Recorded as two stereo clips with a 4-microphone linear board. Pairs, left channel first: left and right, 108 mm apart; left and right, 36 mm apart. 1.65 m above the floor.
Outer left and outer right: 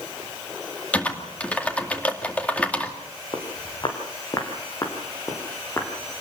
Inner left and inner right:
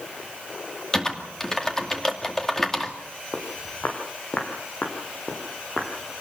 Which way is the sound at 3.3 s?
45° left (ahead or behind).